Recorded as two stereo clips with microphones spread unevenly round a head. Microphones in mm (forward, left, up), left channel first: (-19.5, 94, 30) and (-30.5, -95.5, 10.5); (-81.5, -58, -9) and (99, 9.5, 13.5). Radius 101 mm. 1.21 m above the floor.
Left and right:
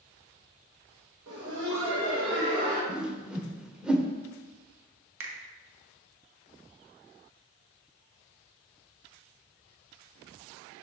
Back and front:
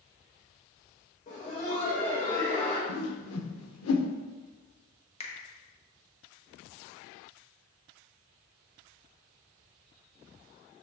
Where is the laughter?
105° right, 1.2 m; by 2.8 s 95° right, 2 m.